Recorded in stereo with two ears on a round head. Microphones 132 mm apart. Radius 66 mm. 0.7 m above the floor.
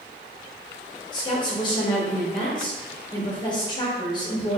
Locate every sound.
1.1 s a woman speaking: 35° left (ahead or behind), 1.2 m